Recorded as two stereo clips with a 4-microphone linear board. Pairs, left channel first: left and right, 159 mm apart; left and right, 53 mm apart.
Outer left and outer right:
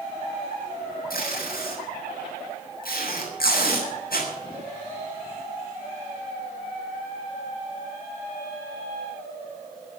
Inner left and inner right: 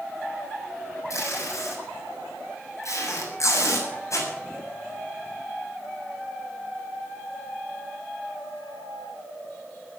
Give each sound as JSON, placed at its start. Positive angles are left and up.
{"t": 1.1, "sound": "tape being pulled", "side_deg": 80, "distance_m": 7.5}